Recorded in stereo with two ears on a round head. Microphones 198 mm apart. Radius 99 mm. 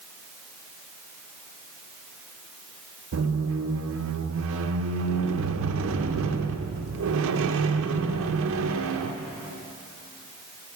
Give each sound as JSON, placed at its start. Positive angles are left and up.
{"t": 3.1, "sound": "a squeak", "side_deg": -60, "distance_m": 0.6}